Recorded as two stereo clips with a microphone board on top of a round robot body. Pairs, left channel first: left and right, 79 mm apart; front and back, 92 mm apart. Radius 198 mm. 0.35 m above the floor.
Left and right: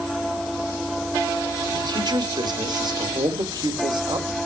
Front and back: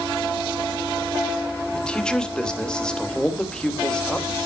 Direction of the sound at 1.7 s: 80° right.